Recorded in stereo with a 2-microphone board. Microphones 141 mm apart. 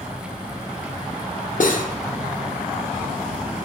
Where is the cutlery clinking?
70° left (ahead or behind), 0.5 m.